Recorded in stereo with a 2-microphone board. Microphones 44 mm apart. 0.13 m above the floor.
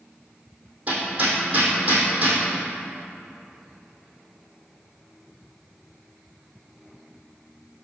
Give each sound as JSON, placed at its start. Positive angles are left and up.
{"t": 0.9, "sound": "hammering", "side_deg": -35, "distance_m": 2.0}